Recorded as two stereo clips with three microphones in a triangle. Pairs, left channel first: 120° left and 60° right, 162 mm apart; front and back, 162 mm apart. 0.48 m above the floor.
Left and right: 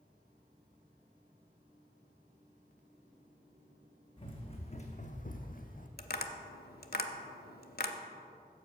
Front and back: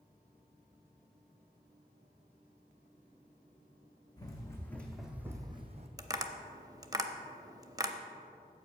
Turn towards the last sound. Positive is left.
turn(degrees=110)